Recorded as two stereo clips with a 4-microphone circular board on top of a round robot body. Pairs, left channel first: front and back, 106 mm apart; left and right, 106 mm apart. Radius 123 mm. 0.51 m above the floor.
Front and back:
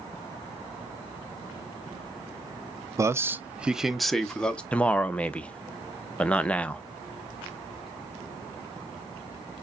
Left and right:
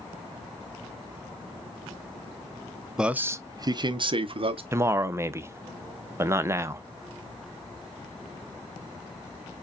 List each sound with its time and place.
3.0 s a man speaking: 165° right, 0.7 m; by 4.6 s 80° right, 1.1 m
4.7 s a man speaking: 65° right, 0.8 m